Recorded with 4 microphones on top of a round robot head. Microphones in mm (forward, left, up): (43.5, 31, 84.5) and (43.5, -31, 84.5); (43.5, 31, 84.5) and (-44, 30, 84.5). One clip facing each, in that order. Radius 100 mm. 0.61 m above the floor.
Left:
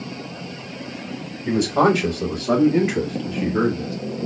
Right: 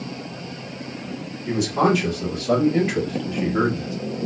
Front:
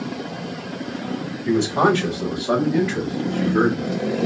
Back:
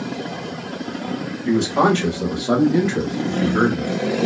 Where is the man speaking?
105° left, 1.4 m; by 4.0 s 155° right, 1.2 m.